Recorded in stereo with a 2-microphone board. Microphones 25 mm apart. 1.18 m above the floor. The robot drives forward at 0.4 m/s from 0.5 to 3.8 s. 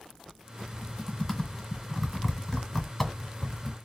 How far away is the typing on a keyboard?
About 2.0 m.